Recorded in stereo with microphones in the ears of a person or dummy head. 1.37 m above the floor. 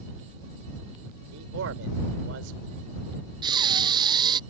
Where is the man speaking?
65° right (ahead or behind).